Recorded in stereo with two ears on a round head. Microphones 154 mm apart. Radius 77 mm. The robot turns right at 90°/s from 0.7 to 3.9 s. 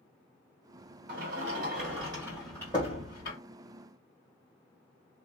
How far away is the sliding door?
About 1.8 m.